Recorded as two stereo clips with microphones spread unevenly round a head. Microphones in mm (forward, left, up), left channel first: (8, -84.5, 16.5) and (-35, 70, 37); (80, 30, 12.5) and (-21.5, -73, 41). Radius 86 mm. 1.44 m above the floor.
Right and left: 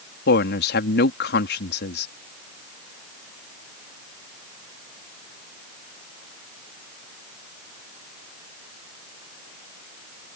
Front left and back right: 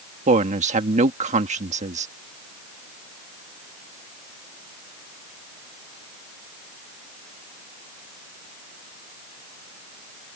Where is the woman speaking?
95° right.